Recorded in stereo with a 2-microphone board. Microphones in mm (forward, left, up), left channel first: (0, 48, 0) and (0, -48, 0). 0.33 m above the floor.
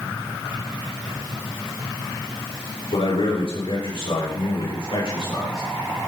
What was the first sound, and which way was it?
A man speaking, 75° left (ahead or behind).